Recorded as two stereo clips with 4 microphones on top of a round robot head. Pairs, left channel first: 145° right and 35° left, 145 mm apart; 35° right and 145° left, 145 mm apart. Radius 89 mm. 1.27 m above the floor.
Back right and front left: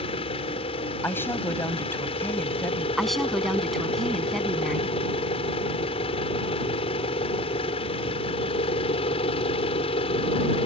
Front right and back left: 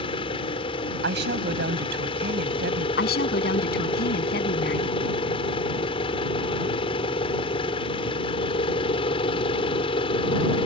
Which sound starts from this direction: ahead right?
A woman speaking, at 3.0 s.